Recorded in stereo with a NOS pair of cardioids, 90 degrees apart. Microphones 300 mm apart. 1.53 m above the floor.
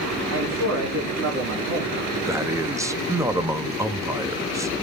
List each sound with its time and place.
0.3 s a man speaking: 60° right, 3 m
2.3 s a man speaking: 10° right, 0.9 m